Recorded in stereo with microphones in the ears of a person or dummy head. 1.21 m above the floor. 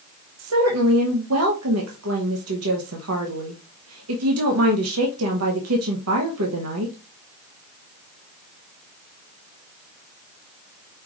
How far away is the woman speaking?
About 1.0 m.